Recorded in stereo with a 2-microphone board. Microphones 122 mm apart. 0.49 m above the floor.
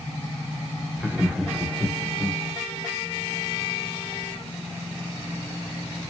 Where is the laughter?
5° right (ahead or behind), 0.7 m.